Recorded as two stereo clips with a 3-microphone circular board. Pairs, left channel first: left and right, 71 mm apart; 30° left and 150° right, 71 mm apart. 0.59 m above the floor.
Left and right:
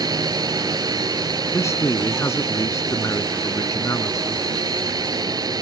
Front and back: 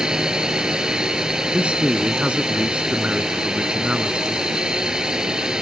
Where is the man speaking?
135° left.